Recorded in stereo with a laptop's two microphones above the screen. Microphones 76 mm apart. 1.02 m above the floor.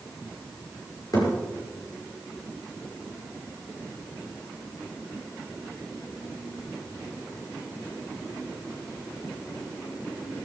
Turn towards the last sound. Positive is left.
turn(degrees=55)  # may be behind; listen again after turning